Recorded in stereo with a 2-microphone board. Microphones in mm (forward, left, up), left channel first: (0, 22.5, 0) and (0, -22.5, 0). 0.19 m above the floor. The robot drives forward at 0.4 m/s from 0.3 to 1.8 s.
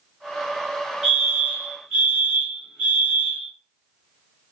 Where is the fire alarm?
Centre (ahead or behind), 2.5 m.